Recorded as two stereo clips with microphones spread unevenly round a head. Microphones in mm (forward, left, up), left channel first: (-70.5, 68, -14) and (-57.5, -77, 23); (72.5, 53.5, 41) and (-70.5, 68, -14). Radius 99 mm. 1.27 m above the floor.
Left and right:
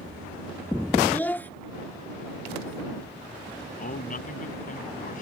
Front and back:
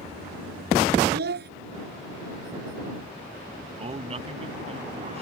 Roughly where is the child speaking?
Behind.